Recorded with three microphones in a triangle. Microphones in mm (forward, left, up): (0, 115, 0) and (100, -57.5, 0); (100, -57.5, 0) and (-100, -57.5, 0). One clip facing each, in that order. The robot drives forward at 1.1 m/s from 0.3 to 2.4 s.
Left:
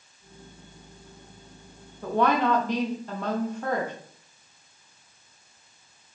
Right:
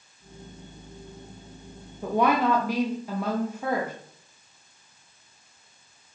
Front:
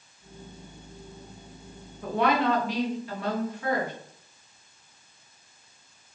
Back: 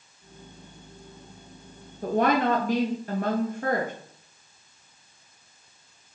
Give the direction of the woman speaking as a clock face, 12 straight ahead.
4 o'clock.